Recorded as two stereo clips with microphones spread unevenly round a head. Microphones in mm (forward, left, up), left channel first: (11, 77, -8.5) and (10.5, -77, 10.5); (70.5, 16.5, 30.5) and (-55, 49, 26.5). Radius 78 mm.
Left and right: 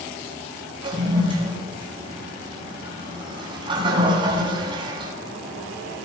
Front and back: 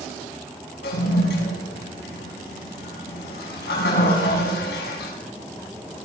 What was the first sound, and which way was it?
A toilet flushing, 30° right.